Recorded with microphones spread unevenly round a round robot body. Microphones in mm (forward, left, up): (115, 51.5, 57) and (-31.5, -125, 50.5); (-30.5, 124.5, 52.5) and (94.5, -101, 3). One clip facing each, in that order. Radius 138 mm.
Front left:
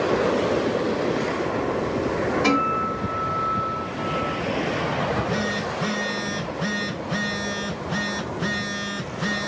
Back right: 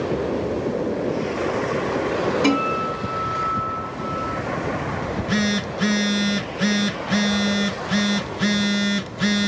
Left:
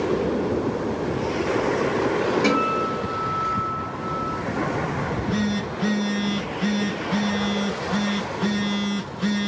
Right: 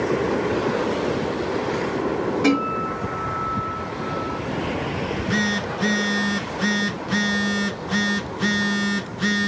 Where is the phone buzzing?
125° right, 0.6 m.